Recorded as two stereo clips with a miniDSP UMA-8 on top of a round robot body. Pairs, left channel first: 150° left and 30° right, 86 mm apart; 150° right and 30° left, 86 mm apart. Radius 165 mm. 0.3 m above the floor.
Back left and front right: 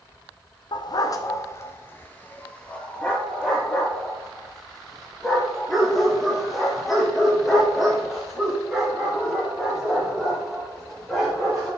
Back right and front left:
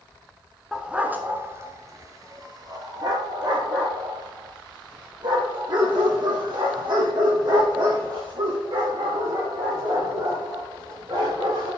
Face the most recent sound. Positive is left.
turn(degrees=55)